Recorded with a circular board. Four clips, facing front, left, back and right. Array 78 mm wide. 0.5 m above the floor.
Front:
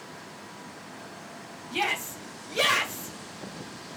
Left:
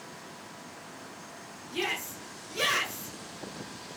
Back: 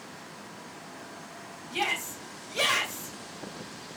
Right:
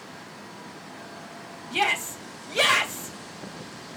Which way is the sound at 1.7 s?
80° right.